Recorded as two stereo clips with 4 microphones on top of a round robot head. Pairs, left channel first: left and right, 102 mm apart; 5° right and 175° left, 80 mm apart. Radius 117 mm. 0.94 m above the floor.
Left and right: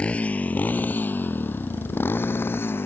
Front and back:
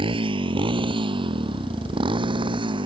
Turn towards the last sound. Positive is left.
turn(degrees=160)